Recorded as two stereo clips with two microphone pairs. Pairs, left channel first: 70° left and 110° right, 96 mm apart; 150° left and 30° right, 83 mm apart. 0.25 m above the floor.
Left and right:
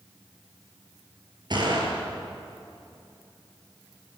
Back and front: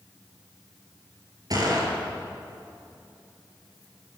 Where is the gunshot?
70° right, 5 m.